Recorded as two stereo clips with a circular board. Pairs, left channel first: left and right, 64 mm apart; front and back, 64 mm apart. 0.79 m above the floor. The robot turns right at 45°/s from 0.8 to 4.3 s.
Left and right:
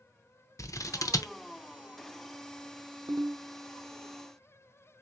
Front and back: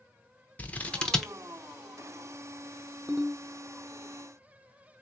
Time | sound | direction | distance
0.6 | scissors | 65° left | 0.6 m
3.1 | a ringtone | 115° right | 0.6 m